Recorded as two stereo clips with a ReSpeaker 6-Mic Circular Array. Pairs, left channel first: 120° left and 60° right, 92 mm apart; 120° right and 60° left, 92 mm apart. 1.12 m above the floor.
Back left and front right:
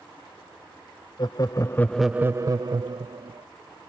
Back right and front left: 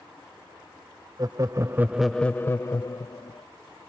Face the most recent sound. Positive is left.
turn(degrees=-75)